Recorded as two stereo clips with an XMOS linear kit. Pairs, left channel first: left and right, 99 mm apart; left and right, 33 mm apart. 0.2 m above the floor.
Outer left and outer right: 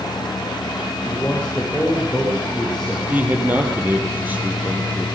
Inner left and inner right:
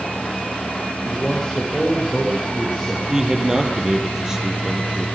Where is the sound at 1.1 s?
10° left (ahead or behind), 8.5 m; by 3.0 s centre (ahead or behind), 7 m.